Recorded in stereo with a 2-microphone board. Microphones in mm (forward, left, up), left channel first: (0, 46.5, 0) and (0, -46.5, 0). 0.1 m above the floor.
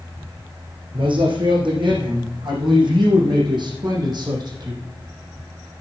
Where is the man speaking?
65° right (ahead or behind), 5.5 m; by 4.8 s 45° right (ahead or behind), 4.5 m.